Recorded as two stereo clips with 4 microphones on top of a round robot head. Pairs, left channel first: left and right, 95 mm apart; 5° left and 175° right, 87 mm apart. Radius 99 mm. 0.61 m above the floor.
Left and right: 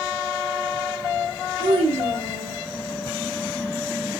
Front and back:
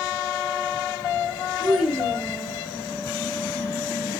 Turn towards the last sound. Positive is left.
turn(degrees=-65)